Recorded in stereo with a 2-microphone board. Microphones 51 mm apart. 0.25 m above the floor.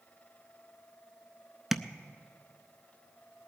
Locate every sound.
1.7 s tapping: 5° right (ahead or behind), 0.6 m